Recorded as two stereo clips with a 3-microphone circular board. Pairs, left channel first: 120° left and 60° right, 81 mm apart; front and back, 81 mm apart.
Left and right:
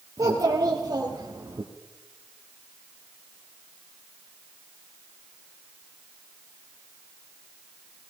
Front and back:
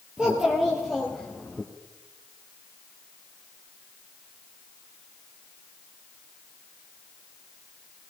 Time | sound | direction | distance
0.2 | a child speaking | 100° right | 2.5 m